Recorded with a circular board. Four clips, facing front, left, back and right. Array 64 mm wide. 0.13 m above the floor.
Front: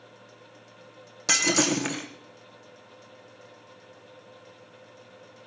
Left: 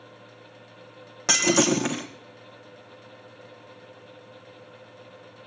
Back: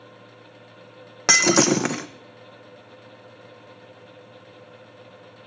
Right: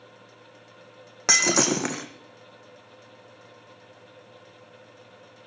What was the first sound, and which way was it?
Breaking glass, 165° right.